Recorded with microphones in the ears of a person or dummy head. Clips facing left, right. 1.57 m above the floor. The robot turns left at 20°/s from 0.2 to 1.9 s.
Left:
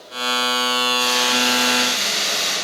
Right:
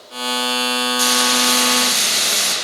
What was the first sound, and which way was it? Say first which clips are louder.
Frying: right 2 dB; 85° right.